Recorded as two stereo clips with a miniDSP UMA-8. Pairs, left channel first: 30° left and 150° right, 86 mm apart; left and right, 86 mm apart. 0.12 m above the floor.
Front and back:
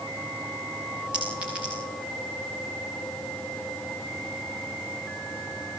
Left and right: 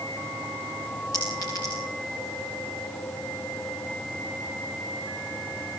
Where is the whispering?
No whispering in this recording.